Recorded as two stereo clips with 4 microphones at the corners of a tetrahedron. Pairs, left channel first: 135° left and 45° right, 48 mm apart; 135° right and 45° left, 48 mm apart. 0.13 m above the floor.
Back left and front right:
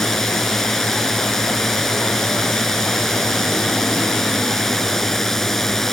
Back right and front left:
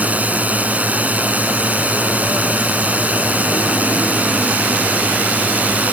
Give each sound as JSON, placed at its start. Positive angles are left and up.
{"t": 0.0, "sound": "a drone", "azimuth_deg": 60}